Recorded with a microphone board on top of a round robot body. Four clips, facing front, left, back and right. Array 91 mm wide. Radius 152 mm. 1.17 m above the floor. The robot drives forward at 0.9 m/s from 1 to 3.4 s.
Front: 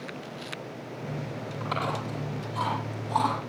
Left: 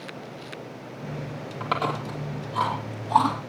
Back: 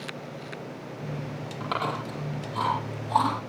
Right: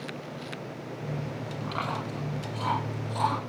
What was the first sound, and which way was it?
Chewing, 105° left.